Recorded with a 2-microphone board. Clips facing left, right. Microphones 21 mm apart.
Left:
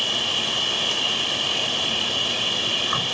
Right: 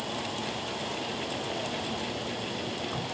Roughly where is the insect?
Left.